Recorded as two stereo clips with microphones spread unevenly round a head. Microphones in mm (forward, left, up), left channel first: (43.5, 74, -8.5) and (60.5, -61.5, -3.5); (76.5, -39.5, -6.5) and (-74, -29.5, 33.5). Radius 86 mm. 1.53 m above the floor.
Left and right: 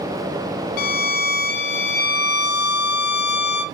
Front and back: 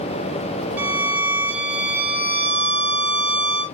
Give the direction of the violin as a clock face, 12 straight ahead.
9 o'clock.